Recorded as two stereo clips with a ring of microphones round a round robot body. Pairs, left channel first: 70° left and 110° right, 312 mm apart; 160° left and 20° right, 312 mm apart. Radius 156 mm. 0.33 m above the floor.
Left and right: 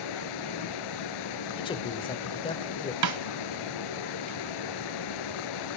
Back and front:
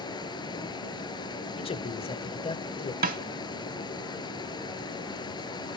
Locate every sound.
0.0 s running water: 80° left, 1.9 m
1.6 s a man speaking: 115° left, 1.3 m
3.0 s a snare drum: 85° right, 0.9 m